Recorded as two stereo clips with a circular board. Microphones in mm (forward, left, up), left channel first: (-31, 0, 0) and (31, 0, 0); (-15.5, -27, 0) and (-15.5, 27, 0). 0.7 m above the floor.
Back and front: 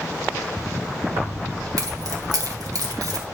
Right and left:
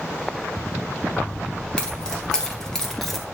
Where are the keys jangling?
20° right, 3 m; by 3.2 s 5° right, 1.6 m.